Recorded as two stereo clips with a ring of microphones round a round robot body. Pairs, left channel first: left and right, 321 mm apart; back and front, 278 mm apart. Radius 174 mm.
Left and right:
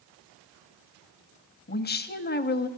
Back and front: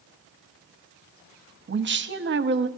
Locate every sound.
1.7 s a woman speaking: 40° left, 0.8 m